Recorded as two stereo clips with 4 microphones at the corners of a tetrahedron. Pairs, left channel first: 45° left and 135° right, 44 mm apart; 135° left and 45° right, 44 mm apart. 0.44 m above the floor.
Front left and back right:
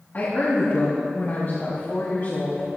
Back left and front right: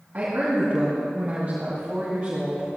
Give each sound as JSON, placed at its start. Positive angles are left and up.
{"t": 0.1, "sound": "a woman speaking", "azimuth_deg": 5, "distance_m": 4.0}